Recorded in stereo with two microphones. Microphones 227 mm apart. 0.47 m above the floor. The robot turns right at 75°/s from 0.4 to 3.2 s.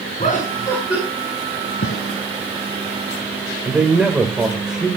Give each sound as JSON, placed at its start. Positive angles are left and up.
{"t": 0.2, "sound": "laughter", "azimuth_deg": 145, "distance_m": 6.0}
{"t": 1.8, "sound": "a gunshot", "side_deg": 75, "distance_m": 1.4}
{"t": 3.6, "sound": "a man speaking", "side_deg": -5, "distance_m": 1.7}